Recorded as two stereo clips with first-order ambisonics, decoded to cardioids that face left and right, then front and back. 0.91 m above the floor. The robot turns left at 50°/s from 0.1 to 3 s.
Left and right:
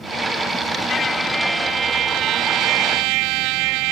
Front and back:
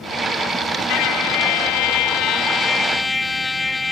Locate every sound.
0.9 s a trumpet: 25° left; by 3.9 s 80° right